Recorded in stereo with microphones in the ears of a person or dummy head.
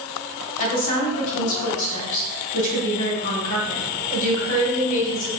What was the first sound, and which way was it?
A woman speaking, 70° left (ahead or behind).